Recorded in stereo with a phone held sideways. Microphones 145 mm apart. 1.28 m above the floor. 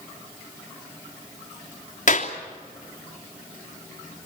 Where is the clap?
60° left (ahead or behind), 3 m.